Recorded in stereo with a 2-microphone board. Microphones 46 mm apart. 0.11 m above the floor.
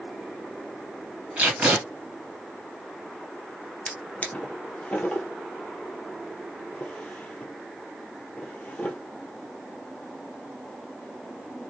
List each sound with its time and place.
1.4 s tape being pulled: 35° right (ahead or behind), 2.5 m
3.9 s a drawer: 30° left (ahead or behind), 1.1 m